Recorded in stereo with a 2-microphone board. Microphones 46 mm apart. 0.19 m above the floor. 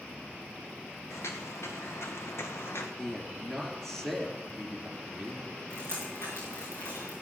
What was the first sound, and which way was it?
Footsteps, 75° left (ahead or behind).